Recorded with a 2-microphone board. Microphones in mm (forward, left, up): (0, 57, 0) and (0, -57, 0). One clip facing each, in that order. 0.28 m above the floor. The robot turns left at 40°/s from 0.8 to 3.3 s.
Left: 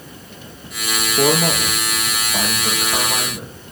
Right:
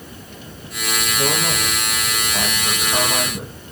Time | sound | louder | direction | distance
1.2 | a man speaking | left 7 dB | 70° left | 6.5 m